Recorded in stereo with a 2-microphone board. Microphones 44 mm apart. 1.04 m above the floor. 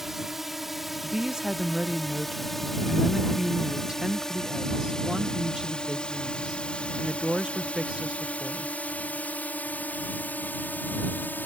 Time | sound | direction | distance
0.0 | a drone | 10° right (ahead or behind) | ?
1.0 | a woman speaking | 15° right (ahead or behind) | ?